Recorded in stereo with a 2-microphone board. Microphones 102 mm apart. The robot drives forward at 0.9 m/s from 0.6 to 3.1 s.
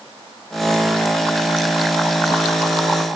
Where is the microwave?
No microwave in this recording.